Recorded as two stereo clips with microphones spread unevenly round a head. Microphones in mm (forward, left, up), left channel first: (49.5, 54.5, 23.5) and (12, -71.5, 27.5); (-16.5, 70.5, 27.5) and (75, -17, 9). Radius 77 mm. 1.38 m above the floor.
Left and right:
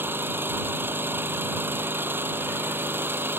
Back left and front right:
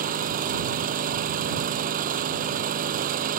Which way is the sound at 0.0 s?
30° right.